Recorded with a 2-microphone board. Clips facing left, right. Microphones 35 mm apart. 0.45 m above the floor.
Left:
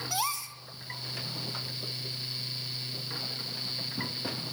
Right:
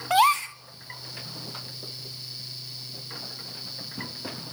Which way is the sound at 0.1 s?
55° right (ahead or behind).